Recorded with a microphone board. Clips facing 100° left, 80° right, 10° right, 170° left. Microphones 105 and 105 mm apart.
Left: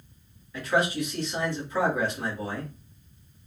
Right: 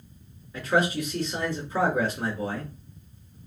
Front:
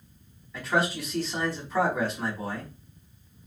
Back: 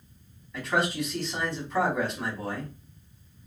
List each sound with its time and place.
0.5 s a man speaking: 95° right, 1.7 m